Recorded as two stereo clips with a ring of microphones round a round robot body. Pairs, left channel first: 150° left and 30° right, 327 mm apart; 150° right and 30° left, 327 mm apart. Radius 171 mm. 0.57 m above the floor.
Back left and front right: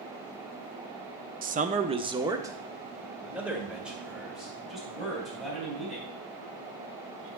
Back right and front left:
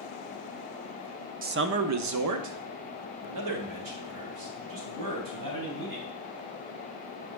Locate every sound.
1.4 s a man speaking: straight ahead, 0.7 m; by 6.1 s 60° left, 4 m